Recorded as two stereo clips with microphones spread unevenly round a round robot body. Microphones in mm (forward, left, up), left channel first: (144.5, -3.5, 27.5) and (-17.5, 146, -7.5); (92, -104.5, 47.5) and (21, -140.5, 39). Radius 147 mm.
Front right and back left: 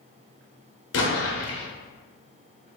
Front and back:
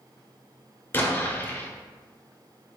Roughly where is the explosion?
Ahead right.